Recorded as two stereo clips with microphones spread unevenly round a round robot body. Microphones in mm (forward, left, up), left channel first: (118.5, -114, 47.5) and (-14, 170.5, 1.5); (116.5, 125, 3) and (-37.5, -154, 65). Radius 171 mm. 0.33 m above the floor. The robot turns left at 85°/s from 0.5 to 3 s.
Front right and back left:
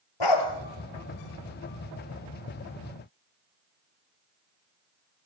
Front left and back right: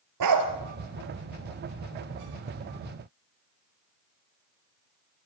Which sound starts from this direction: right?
A dog barking, at 0.2 s.